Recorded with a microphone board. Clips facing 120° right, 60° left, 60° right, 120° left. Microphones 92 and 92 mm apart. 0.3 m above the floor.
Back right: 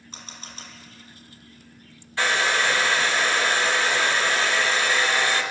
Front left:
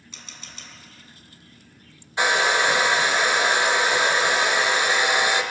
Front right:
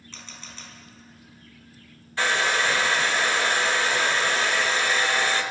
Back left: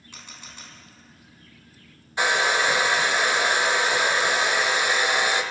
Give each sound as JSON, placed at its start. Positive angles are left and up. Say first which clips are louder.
{"t": 0.1, "sound": "a camera shutter", "louder": "back right 3 dB, even", "azimuth_deg": -165, "distance_m": 2.0}
{"t": 2.2, "sound": "a hair dryer", "louder": "front left 2 dB, back left 2 dB", "azimuth_deg": 85, "distance_m": 0.8}